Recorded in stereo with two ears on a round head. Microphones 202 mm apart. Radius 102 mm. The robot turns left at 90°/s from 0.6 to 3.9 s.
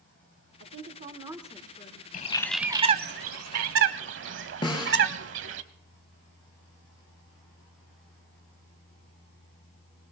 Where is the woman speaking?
100° right, 1.2 m; by 2.0 s 130° left, 1.2 m.